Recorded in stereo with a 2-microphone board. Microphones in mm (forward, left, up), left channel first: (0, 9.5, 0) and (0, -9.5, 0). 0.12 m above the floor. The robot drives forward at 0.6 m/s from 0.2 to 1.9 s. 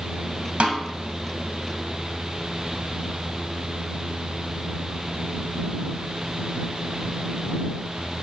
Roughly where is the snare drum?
Right.